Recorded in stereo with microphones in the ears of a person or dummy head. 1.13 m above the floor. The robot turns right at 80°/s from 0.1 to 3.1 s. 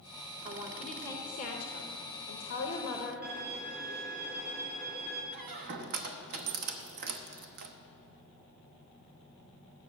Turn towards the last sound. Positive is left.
turn(degrees=-60)  # may be behind; listen again after turning